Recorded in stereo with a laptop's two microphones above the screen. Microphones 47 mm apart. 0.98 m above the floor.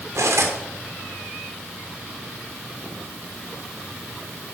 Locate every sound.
0.1 s cutlery clinking: 90° right, 1.8 m